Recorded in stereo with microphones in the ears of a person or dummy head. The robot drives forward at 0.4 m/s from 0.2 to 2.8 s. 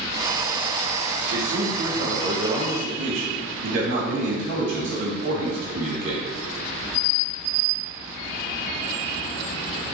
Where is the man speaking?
80° right, 2.5 m.